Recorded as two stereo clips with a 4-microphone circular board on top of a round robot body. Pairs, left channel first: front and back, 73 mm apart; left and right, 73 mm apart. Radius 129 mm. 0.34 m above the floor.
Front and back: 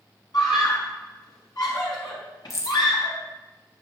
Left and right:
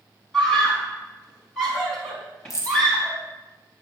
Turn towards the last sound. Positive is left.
turn(degrees=50)